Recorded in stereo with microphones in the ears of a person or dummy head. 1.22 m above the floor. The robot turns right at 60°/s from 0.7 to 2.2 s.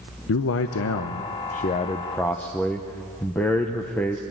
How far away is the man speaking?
About 0.8 m.